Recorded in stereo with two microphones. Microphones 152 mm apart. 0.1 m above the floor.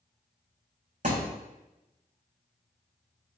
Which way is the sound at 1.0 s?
55° right (ahead or behind).